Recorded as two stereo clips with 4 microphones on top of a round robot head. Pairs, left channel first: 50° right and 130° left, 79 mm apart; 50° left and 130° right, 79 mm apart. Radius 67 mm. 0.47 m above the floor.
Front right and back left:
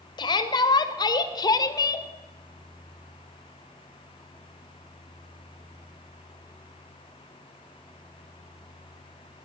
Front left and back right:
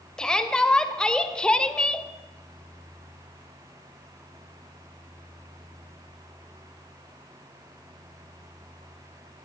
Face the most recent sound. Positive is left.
turn(degrees=-25)